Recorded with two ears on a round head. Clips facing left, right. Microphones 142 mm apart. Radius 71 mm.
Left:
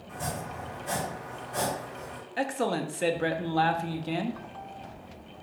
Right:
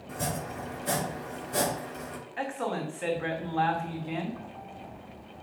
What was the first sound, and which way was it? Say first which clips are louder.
Chopping: right 2 dB; 65° right (ahead or behind).